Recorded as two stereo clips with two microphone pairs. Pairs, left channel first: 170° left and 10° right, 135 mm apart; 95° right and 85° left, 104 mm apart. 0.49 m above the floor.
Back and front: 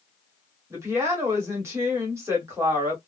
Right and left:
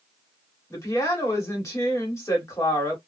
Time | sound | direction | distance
0.7 | a woman speaking | 60° right | 1.3 m